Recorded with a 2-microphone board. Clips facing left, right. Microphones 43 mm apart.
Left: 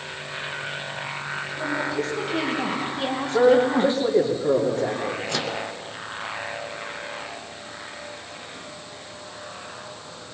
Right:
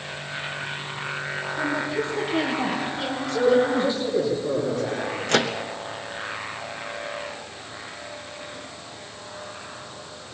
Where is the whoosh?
I don't hear a whoosh.